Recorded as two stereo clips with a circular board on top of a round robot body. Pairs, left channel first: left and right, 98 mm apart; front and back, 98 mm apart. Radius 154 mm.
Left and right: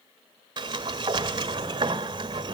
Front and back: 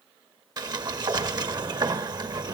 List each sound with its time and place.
0.6 s a sliding door: 135° right, 1.5 m